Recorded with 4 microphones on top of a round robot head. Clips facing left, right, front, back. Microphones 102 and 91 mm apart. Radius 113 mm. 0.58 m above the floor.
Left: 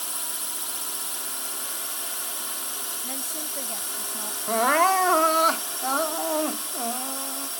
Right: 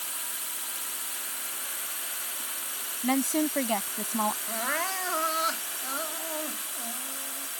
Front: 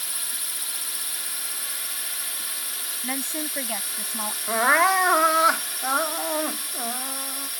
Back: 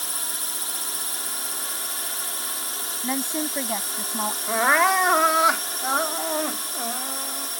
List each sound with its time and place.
0.0 s a drone: 140° left
3.0 s a woman speaking: 105° right
4.5 s crying: 90° left